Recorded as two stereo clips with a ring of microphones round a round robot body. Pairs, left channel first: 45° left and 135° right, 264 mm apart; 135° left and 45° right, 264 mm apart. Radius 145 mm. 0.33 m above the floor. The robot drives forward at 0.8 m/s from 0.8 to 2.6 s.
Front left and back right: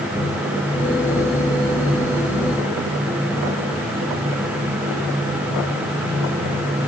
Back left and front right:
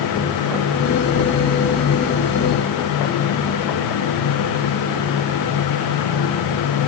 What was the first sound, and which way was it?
Only background noise.